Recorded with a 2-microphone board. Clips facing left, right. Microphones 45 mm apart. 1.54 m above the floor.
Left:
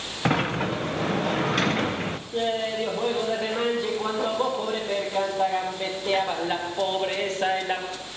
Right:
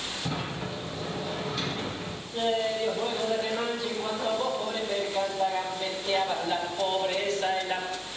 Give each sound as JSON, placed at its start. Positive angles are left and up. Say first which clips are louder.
{"t": 0.2, "sound": "a sliding door", "louder": "left 12 dB", "side_deg": 55, "distance_m": 0.6}
{"t": 2.3, "sound": "laughter", "louder": "left 1 dB", "side_deg": 35, "distance_m": 1.9}